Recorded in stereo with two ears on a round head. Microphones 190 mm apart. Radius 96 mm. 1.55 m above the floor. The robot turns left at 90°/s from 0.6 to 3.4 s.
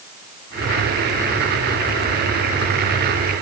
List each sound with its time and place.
Only background noise.